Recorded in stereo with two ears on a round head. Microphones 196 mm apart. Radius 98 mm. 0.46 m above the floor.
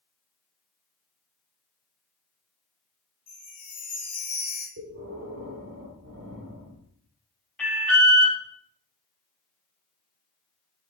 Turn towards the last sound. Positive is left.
turn(degrees=5)  # may be behind; listen again after turning